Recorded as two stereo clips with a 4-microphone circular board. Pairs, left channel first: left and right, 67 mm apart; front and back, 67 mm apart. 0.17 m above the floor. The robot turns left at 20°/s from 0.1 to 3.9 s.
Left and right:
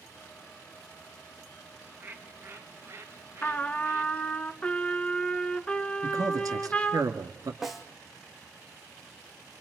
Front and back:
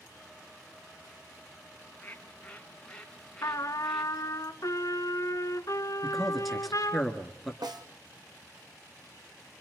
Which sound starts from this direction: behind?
A snare drum, at 7.6 s.